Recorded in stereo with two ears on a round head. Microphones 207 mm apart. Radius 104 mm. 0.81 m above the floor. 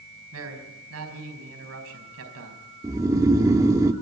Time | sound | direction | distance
0.3 | a man speaking | 70° right (ahead or behind) | 4.5 m
2.8 | snoring | 15° right (ahead or behind) | 1.0 m